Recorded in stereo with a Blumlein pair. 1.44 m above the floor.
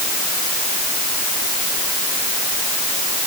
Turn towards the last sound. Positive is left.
No sound to turn to.